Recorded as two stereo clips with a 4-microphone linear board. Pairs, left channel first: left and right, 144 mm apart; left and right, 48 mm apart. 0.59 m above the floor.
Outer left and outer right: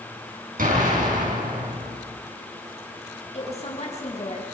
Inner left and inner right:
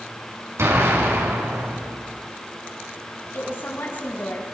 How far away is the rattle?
I don't hear a rattle.